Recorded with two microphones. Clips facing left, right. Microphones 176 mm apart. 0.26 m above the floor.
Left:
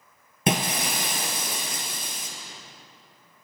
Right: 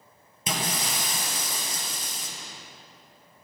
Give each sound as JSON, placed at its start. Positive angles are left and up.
{"t": 0.5, "sound": "breaking glass", "side_deg": 65, "distance_m": 3.5}